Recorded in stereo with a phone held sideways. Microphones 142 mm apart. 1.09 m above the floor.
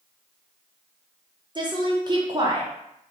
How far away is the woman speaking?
About 0.6 m.